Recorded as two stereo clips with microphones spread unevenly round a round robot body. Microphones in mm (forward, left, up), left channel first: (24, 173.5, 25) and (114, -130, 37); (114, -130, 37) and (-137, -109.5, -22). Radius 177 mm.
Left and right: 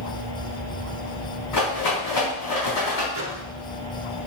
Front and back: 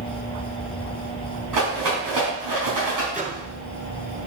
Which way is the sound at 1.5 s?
155° left.